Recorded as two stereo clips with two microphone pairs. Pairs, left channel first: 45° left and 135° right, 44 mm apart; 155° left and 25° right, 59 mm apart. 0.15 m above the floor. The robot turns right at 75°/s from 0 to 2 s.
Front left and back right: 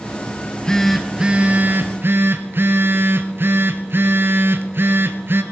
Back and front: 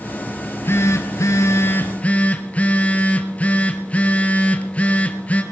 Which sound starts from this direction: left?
A phone buzzing, at 0.4 s.